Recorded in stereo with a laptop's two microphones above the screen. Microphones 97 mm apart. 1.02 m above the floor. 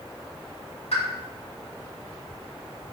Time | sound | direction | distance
0.9 | a pop | 80° left | 4 m